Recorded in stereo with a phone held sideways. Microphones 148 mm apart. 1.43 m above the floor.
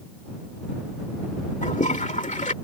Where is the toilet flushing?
55° left (ahead or behind).